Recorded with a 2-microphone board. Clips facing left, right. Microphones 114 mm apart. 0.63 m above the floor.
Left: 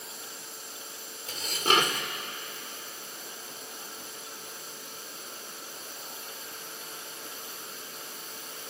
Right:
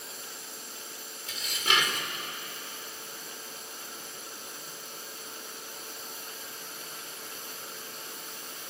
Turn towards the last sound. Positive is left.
turn(degrees=40)  # may be behind; listen again after turning